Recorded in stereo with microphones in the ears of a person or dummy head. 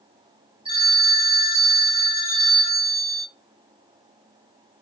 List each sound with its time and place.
0.7 s a phone ringing: 25° right (ahead or behind), 2 m